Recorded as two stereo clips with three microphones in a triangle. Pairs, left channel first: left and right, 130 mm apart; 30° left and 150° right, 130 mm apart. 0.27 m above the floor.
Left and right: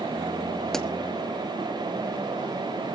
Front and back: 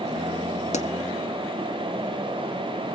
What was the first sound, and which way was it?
A pop, 5° left.